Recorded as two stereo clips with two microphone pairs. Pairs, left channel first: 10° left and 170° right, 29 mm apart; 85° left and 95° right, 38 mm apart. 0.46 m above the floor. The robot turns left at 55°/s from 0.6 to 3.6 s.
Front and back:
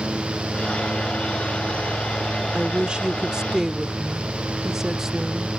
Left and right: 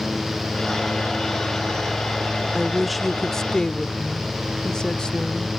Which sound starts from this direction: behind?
A woman speaking, at 2.5 s.